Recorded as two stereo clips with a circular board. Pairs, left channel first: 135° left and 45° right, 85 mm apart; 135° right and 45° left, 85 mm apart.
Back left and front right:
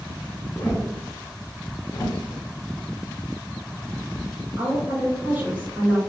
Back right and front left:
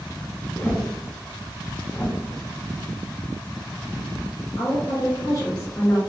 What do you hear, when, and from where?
0.6 s a whoosh: 170° left, 0.8 m
1.9 s a whoosh: 165° left, 0.7 m
4.6 s a woman speaking: 105° right, 1.6 m